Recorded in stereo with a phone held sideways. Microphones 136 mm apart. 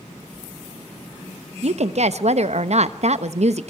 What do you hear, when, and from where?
1.6 s a woman speaking: 60° right (ahead or behind), 0.8 m